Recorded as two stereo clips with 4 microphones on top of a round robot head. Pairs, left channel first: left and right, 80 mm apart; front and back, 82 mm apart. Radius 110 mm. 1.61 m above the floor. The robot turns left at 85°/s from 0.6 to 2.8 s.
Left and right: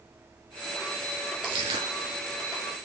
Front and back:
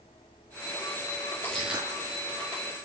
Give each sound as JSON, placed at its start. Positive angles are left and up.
{"t": 1.4, "sound": "crushing", "azimuth_deg": -75, "distance_m": 1.3}